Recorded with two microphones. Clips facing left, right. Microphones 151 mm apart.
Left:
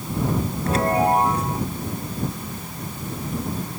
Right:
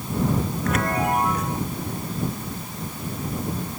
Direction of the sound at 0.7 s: 30° left (ahead or behind).